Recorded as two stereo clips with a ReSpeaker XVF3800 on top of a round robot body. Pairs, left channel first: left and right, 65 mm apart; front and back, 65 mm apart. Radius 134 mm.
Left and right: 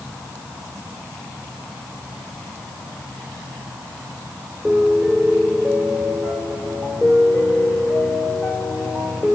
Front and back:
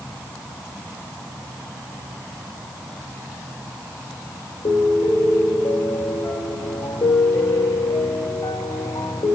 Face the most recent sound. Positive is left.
turn(degrees=-10)